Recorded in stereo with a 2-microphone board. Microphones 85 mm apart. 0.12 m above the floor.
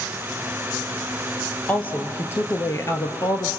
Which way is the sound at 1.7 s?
15° left (ahead or behind).